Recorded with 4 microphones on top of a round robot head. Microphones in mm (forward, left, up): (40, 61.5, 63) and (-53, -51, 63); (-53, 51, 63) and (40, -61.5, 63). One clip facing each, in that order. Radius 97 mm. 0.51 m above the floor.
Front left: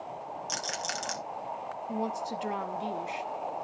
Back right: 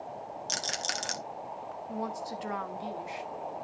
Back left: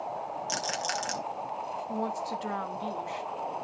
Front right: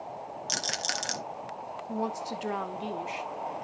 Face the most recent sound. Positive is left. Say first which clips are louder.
# front left 3 dB, front right 1 dB
turn(degrees=5)